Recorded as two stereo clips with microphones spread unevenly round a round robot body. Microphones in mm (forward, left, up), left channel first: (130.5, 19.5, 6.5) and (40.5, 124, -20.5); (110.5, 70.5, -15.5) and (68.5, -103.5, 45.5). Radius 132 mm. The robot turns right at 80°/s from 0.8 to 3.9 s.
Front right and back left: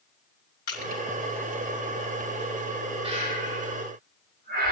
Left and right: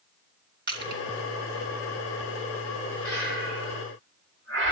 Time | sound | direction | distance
0.7 | crushing | 75° right | 3.5 m
3.0 | breathing | 85° left | 9 m